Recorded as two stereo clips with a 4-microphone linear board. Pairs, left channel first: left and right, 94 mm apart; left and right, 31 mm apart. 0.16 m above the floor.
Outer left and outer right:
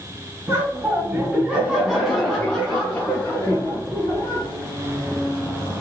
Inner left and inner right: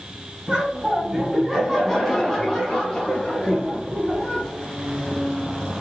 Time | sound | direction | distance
0.5 | laughter | 30° right (ahead or behind) | 1.7 m